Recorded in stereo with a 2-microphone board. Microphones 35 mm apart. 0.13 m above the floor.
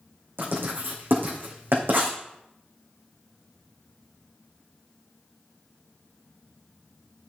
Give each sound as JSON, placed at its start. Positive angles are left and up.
{"t": 0.4, "sound": "writing", "side_deg": -80, "distance_m": 4.0}